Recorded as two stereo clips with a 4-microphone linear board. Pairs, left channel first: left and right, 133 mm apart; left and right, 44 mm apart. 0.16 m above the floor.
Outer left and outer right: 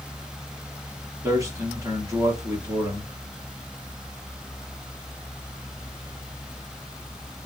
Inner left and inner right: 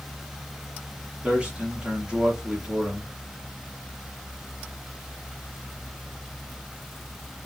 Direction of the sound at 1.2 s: 25° right (ahead or behind).